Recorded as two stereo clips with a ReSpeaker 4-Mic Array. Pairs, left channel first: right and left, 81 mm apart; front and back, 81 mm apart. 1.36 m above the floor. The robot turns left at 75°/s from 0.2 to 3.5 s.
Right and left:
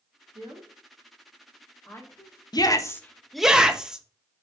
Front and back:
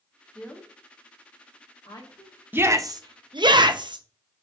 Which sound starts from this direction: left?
A woman speaking, at 0.3 s.